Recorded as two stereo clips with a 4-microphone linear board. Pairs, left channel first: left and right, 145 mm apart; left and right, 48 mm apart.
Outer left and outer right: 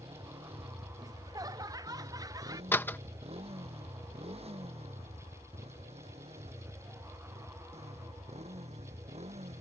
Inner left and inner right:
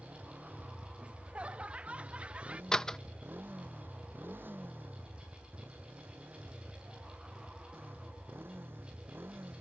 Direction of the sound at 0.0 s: 40° right (ahead or behind).